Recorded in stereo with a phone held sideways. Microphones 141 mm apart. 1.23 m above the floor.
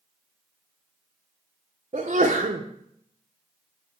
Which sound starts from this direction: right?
A sneeze, at 1.9 s.